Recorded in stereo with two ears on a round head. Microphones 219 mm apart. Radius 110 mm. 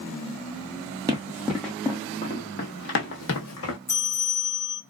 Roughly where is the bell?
Centre.